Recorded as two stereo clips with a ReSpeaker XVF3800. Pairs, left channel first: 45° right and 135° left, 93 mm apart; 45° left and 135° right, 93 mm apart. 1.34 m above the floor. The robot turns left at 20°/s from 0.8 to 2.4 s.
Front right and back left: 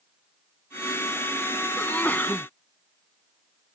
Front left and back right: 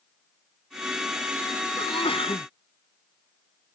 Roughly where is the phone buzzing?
I don't hear a phone buzzing.